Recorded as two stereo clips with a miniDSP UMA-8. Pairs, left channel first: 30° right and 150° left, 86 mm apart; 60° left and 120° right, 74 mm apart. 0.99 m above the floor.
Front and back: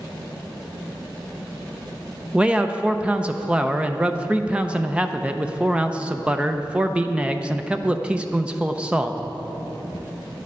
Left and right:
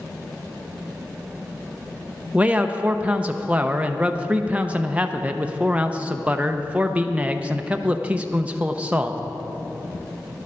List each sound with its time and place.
2.3 s a man speaking: 155° right, 0.6 m